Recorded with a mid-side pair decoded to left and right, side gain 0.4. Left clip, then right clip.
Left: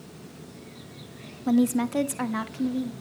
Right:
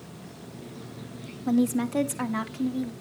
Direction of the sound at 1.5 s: 30° left.